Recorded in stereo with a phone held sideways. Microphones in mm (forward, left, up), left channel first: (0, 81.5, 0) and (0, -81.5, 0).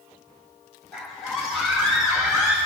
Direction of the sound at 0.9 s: Centre (ahead or behind).